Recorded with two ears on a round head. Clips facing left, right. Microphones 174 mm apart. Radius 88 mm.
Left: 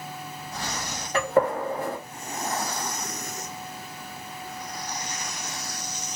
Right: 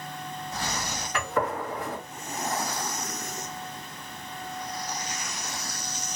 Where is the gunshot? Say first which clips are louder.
Left 7 dB; 25° left (ahead or behind), 1.4 m.